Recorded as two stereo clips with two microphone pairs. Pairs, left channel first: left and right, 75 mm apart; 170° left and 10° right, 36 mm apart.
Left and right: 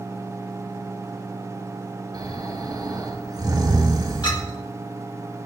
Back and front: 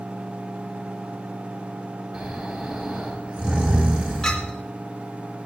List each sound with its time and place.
2.1 s snoring: 65° right, 4 m
4.2 s a clink: 100° left, 2.0 m